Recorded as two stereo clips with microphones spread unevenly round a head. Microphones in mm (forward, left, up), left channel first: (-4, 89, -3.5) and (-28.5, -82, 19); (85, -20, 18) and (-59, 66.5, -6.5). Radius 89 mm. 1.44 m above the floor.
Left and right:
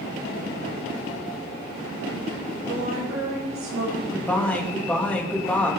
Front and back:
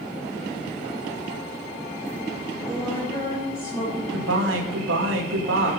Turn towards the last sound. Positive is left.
turn(degrees=165)